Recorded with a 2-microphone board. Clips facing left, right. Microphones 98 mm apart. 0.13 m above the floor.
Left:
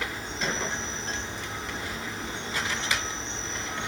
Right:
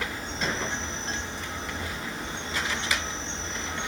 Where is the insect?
45° right (ahead or behind), 2.5 m.